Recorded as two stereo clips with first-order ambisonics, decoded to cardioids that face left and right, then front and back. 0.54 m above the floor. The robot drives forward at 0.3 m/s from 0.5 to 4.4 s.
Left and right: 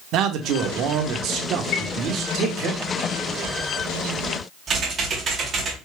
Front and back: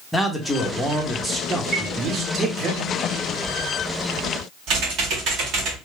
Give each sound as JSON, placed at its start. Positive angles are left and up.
{"t": 0.1, "sound": "a man speaking", "azimuth_deg": -85, "distance_m": 0.9}
{"t": 1.7, "sound": "a chime", "azimuth_deg": 105, "distance_m": 1.3}
{"t": 4.7, "sound": "typing on a keyboard", "azimuth_deg": -155, "distance_m": 1.7}